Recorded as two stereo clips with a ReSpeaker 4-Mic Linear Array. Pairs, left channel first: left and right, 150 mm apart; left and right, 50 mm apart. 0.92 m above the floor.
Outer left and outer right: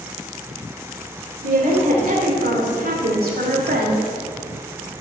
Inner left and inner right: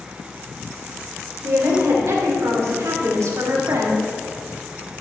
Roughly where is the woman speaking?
Right.